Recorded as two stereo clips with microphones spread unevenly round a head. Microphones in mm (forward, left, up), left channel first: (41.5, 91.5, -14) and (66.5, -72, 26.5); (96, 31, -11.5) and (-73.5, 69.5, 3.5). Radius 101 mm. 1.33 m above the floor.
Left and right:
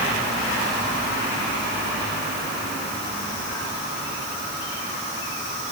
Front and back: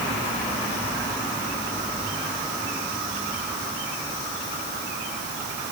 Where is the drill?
No drill in this recording.